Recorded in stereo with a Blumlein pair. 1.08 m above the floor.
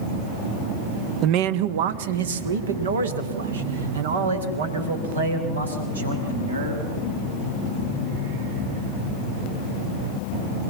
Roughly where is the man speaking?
Ahead right.